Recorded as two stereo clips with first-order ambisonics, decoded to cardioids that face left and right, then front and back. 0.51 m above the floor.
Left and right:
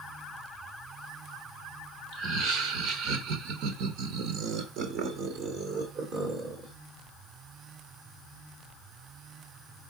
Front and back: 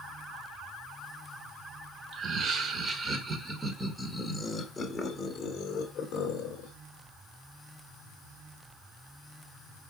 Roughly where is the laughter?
Behind right.